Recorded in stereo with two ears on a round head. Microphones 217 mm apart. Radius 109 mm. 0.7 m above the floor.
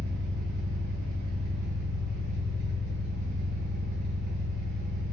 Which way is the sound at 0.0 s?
85° right.